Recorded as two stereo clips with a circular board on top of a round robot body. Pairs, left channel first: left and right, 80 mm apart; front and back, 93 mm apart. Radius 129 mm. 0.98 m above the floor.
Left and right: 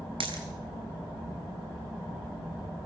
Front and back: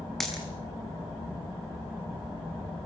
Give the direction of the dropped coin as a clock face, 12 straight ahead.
3 o'clock.